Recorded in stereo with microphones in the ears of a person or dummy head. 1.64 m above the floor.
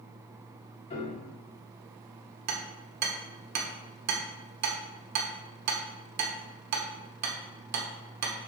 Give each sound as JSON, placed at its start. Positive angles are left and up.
{"t": 0.9, "sound": "a piano", "side_deg": 35, "distance_m": 1.4}
{"t": 2.5, "sound": "hammering", "side_deg": -50, "distance_m": 1.1}